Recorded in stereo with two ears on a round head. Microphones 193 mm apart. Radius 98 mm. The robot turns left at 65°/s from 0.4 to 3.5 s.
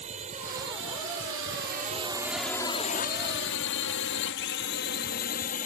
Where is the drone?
30° right (ahead or behind); by 5.7 s 35° left (ahead or behind).